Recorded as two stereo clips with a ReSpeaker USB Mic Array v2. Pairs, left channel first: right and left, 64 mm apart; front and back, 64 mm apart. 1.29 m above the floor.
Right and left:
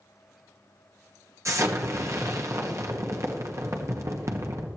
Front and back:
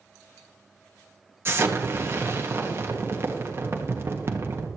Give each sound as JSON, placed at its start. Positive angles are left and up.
{"t": 1.4, "sound": "an explosion", "azimuth_deg": 130, "distance_m": 1.6}